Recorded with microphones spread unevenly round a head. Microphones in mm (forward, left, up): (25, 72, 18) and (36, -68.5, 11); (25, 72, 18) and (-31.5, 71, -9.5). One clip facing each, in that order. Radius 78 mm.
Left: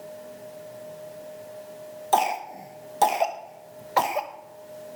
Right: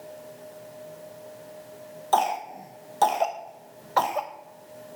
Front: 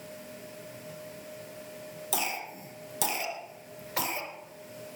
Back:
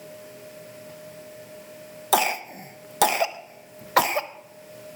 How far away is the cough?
About 0.9 m.